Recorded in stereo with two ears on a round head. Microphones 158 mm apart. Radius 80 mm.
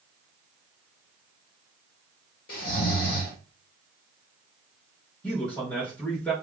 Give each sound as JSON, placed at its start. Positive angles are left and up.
{"t": 2.5, "sound": "snoring", "side_deg": 55, "distance_m": 1.5}
{"t": 5.2, "sound": "a man speaking", "side_deg": 5, "distance_m": 1.1}